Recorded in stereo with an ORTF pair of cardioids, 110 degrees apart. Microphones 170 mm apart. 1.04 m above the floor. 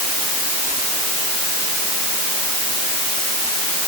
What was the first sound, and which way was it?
Only background noise.